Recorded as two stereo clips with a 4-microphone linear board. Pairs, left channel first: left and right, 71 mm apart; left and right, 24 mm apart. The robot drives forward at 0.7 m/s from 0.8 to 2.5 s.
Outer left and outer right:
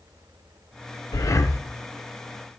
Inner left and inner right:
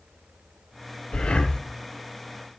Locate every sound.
1.1 s breathing: 55° left (ahead or behind), 0.7 m; by 1.6 s 40° left (ahead or behind), 0.9 m